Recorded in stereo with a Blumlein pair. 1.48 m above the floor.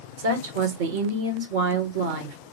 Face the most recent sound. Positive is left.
turn(degrees=-50)